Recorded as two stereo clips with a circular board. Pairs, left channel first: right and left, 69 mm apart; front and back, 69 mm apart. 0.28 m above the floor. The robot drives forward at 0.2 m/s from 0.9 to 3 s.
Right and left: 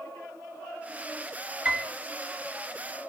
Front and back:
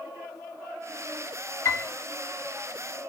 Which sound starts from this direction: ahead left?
A piano, at 1.6 s.